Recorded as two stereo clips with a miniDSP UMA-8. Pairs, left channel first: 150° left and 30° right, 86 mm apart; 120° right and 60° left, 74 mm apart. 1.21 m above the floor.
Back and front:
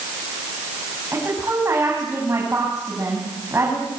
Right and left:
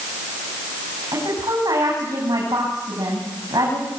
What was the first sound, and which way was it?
A woman speaking, 30° left.